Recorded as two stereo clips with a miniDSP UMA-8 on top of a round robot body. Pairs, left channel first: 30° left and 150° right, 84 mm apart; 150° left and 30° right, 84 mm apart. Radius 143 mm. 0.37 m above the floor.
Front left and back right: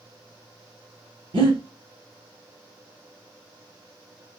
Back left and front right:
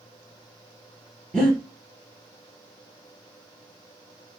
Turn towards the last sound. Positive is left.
turn(degrees=-130)